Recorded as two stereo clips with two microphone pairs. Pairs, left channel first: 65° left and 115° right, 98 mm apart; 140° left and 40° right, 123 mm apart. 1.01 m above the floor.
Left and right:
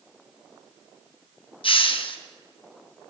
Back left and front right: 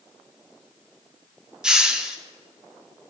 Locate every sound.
1.6 s a hiss: 40° left, 1.0 m